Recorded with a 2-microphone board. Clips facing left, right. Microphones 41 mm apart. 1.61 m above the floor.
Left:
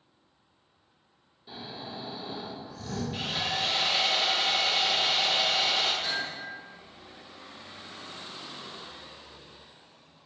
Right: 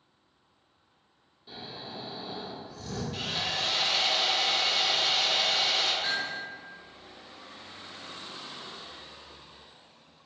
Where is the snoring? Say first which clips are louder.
Left 1 dB; 5° left (ahead or behind), 1.3 m.